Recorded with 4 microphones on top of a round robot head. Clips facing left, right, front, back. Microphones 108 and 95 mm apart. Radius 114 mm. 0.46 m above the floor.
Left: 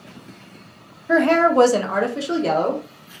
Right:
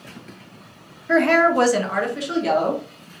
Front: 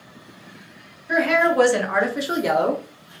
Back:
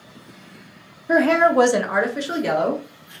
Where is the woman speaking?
155° left, 0.9 m; by 2.8 s 45° left, 0.9 m.